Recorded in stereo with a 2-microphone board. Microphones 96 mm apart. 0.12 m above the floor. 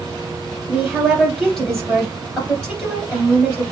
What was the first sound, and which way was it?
A woman speaking, centre (ahead or behind).